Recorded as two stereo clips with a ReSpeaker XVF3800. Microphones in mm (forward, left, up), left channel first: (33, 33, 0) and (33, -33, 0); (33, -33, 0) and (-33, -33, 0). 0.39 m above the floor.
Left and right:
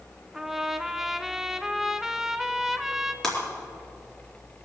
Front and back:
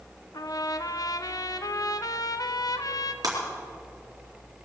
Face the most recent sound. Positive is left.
turn(degrees=170)